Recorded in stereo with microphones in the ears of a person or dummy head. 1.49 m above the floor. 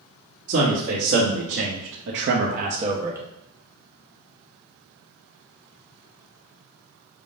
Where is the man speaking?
55° right (ahead or behind), 1.6 m; by 3.2 s 10° right (ahead or behind), 0.8 m.